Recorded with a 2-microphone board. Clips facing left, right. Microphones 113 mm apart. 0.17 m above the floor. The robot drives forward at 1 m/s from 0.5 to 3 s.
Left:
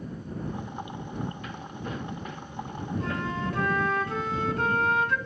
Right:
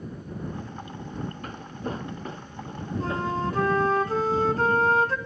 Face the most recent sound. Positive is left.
turn(degrees=-35)  # may be behind; listen again after turning